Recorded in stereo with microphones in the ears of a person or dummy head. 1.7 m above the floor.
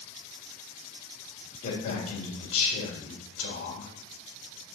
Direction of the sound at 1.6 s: 40° left (ahead or behind).